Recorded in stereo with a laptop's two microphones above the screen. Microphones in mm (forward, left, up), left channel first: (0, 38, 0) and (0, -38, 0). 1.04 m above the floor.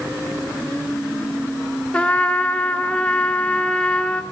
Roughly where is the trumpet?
Centre.